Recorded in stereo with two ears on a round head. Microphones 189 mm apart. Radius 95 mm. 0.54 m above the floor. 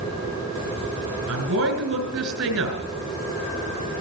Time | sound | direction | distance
1.3 | a woman speaking | 75° right (ahead or behind) | 3.5 m